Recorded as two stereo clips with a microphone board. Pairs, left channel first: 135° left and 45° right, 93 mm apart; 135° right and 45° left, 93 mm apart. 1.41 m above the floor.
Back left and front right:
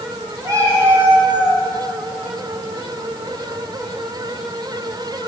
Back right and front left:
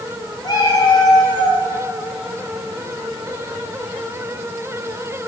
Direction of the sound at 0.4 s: 95° right.